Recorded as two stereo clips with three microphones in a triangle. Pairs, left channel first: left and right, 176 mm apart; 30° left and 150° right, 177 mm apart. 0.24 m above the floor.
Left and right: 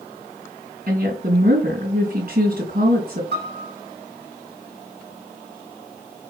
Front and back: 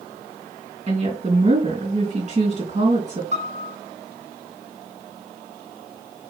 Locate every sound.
0.9 s a woman speaking: 105° right, 3 m
3.3 s a piano: 100° right, 1.9 m